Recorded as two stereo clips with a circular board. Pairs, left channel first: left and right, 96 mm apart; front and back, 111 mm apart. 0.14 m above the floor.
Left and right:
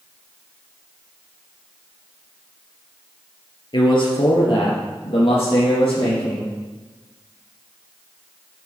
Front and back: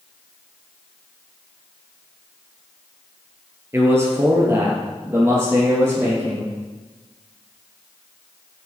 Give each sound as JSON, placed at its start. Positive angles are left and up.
{"t": 3.7, "sound": "a man speaking", "azimuth_deg": 115, "distance_m": 3.0}